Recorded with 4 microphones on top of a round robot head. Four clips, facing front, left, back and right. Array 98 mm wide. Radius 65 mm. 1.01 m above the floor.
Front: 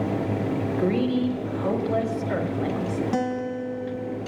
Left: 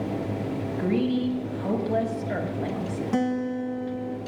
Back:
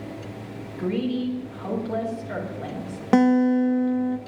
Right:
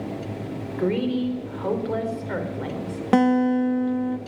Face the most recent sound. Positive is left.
turn(degrees=-130)